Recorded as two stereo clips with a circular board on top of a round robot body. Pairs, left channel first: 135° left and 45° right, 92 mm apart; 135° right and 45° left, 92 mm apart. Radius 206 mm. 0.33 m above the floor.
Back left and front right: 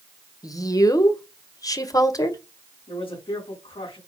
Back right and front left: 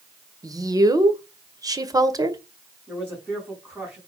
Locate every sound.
0.4 s a woman speaking: 90° left, 1.9 m
2.9 s a man speaking: 125° left, 4.5 m